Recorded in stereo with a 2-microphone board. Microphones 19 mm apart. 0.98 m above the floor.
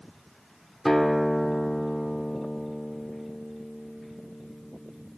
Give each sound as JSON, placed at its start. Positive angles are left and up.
{"t": 0.8, "sound": "a guitar", "side_deg": 5, "distance_m": 2.5}